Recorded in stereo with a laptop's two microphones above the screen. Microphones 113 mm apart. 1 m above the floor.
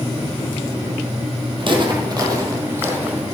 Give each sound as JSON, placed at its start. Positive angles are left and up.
{"t": 1.6, "sound": "footsteps", "side_deg": -50, "distance_m": 2.0}